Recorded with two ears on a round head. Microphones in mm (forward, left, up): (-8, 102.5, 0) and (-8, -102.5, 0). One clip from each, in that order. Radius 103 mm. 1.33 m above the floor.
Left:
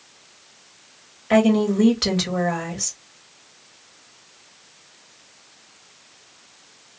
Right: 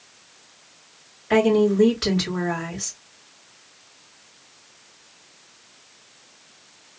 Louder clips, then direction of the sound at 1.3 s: Even; 20° left (ahead or behind).